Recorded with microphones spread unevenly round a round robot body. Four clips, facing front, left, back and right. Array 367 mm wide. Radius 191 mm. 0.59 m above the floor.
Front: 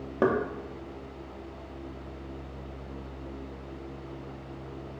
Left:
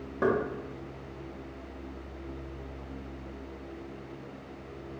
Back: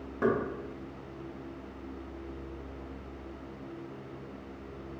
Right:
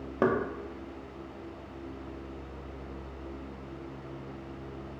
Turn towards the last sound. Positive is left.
turn(degrees=-30)